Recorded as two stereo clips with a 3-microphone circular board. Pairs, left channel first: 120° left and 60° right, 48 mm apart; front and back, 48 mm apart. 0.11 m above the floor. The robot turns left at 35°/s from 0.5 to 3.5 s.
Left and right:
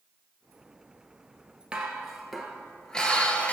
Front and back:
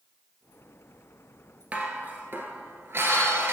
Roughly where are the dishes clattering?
Behind right.